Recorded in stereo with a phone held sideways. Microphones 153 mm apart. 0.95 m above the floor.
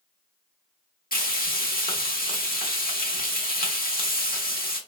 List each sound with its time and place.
1.1 s frying: 75° left (ahead or behind), 1.1 m